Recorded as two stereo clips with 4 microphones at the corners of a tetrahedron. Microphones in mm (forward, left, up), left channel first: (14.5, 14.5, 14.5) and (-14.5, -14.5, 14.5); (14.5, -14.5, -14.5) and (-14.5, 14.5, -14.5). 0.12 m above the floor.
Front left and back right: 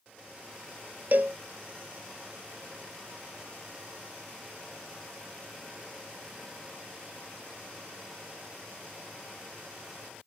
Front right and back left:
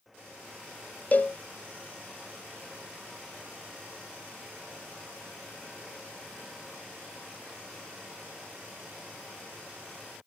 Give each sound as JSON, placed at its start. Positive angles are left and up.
{"t": 1.1, "sound": "a cowbell", "azimuth_deg": -95, "distance_m": 0.7}